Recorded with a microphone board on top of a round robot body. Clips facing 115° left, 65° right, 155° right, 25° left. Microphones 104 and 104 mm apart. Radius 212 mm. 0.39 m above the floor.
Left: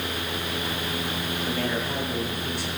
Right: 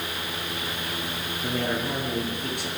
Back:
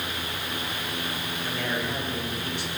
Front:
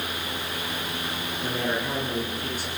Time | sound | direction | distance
1.4 | a man speaking | 25° right | 7 m